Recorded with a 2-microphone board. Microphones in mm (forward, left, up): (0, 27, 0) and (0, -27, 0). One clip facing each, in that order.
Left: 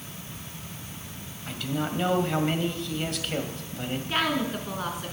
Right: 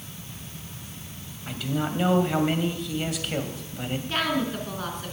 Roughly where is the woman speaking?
Centre.